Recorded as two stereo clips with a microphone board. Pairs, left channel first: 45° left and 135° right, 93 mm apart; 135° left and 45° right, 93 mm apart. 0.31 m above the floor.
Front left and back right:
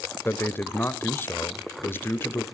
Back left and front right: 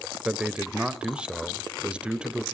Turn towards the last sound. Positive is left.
turn(degrees=20)